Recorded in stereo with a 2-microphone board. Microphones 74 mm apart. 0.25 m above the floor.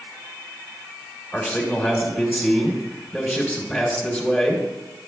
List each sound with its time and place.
1.3 s a man speaking: 20° left (ahead or behind), 2.5 m